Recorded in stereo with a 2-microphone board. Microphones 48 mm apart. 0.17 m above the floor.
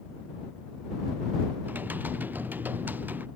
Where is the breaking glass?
No breaking glass in this recording.